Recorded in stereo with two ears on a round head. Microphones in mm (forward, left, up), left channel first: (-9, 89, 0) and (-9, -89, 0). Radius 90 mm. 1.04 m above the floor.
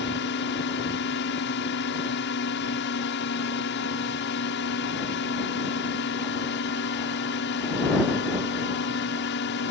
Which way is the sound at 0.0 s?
60° left (ahead or behind).